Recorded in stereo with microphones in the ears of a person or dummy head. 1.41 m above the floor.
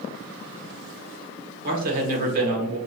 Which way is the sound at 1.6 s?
50° right (ahead or behind).